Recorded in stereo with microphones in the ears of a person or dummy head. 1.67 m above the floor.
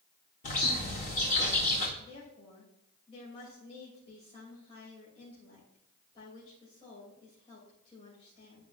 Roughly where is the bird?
Left.